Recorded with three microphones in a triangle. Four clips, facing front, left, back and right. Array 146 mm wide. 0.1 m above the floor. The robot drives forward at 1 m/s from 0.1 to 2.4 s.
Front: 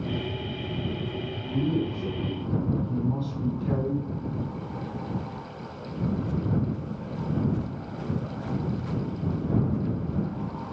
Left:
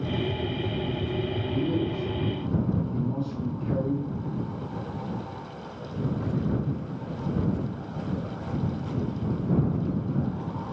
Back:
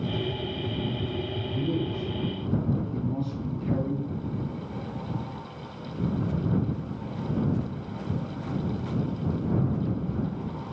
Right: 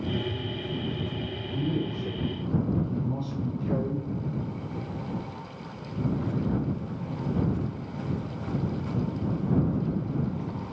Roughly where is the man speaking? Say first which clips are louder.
Left 1 dB, front 3 dB; ahead.